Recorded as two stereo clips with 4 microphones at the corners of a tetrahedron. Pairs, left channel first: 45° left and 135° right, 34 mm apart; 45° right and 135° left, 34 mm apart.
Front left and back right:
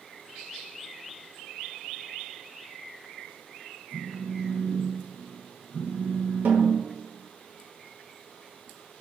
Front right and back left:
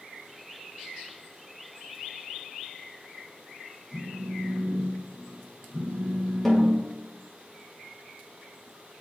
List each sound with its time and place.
3.9 s a phone buzzing: straight ahead, 1.4 m
6.5 s a snare drum: 125° right, 1.3 m